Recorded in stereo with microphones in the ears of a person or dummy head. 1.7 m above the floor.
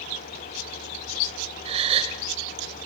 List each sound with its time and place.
1.6 s a gasp: 30° right (ahead or behind), 2.5 m